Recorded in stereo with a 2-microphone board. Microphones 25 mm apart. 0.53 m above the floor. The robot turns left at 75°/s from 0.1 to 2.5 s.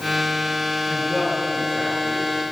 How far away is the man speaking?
About 9 m.